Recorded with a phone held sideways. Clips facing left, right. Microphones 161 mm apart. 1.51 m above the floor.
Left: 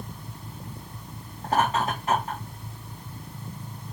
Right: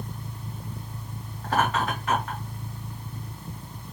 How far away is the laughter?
About 1.8 m.